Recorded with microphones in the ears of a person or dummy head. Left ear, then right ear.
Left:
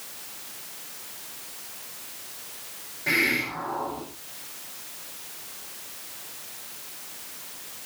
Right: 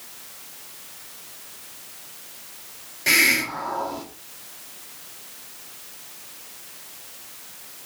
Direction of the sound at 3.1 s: 90° right.